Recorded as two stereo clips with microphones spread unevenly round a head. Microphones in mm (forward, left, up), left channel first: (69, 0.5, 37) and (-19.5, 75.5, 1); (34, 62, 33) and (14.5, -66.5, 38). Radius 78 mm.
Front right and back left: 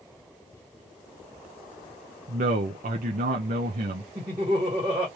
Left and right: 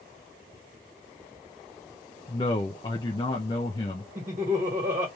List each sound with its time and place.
2.3 s a man speaking: 145° left, 0.7 m
4.2 s laughter: 160° right, 2 m